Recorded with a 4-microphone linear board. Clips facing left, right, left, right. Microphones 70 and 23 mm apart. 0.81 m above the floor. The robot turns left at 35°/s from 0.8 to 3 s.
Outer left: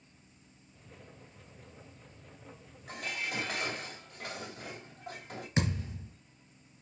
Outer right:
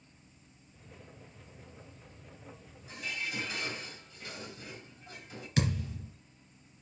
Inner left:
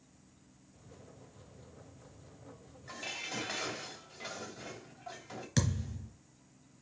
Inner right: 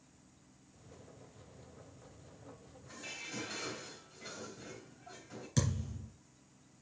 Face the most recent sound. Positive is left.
turn(degrees=30)  # may be behind; listen again after turning